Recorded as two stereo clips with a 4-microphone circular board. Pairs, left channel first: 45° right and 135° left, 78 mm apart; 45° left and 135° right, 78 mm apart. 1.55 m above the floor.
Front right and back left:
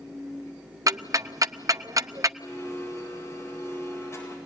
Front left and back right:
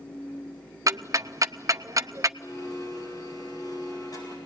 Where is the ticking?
Straight behind, 0.7 m.